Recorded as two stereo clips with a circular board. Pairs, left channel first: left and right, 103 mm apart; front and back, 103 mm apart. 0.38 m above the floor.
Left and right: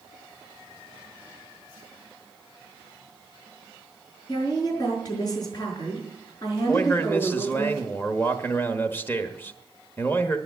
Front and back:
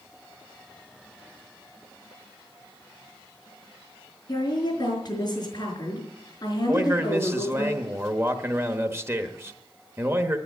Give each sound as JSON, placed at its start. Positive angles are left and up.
{"t": 4.3, "sound": "a woman speaking", "azimuth_deg": 45, "distance_m": 5.0}
{"t": 6.7, "sound": "a man speaking", "azimuth_deg": 140, "distance_m": 1.2}